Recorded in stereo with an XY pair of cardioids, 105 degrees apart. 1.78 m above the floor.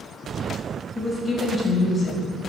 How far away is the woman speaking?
About 1.6 m.